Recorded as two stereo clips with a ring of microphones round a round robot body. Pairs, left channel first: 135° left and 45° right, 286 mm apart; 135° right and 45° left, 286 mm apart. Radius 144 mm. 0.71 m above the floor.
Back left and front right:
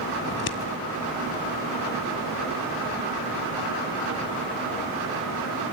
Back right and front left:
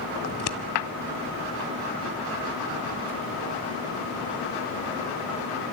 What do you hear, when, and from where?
0.3 s scissors: 175° right, 1.5 m